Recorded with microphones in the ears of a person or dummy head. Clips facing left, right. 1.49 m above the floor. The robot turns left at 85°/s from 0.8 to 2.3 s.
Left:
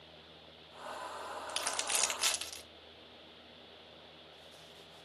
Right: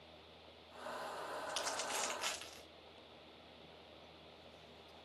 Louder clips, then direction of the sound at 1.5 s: Left 2 dB; 30° left (ahead or behind).